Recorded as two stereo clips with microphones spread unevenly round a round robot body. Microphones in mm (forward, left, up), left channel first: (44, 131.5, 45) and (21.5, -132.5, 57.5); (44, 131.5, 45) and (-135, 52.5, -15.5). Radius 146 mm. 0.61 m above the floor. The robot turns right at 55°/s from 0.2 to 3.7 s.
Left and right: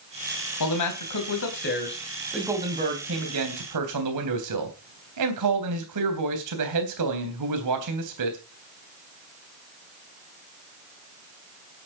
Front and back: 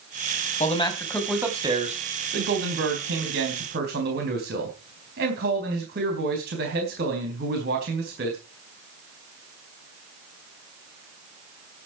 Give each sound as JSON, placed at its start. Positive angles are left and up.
{"t": 0.6, "sound": "a man speaking", "azimuth_deg": 80, "distance_m": 3.5}